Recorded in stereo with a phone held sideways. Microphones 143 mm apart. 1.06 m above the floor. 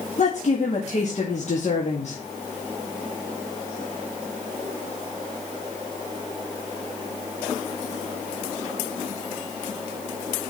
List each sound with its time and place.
0.2 s a woman speaking: 55° left (ahead or behind), 2 m